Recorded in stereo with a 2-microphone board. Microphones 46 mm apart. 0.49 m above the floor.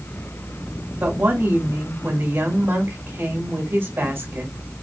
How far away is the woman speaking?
About 2 m.